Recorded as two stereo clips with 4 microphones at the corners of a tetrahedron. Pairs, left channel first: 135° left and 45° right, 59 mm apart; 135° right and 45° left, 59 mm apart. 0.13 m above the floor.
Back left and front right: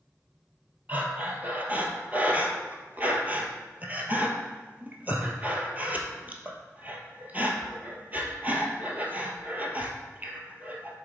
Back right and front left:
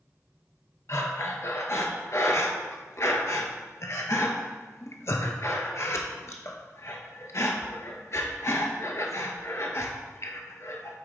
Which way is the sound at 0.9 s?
105° right.